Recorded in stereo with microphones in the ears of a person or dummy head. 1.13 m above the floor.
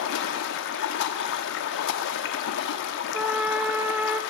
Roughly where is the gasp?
No gasp in this recording.